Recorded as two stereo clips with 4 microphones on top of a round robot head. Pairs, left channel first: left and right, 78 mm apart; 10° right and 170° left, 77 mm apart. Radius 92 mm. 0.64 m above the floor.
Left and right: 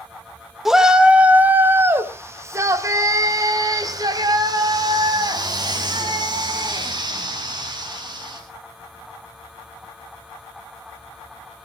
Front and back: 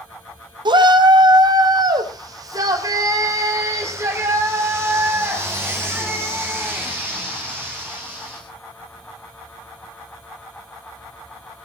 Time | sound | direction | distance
0.7 | a shout | 175° right | 2 m